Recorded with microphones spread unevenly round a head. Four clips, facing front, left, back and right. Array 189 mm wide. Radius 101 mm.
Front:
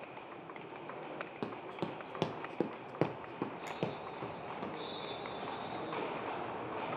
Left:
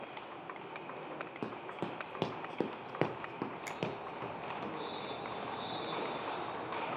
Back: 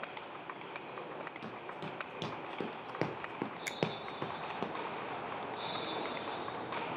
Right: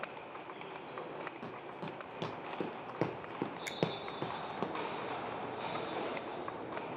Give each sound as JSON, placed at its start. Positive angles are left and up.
{"t": 1.4, "sound": "running footsteps", "azimuth_deg": 55, "distance_m": 1.9}
{"t": 3.7, "sound": "a finger snap", "azimuth_deg": -165, "distance_m": 0.8}